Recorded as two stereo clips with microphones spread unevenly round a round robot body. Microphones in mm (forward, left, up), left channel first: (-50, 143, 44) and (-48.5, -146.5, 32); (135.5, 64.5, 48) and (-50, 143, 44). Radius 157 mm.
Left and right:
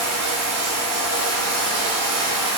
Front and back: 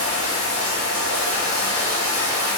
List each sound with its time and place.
0.0 s running water: 125° right, 1.8 m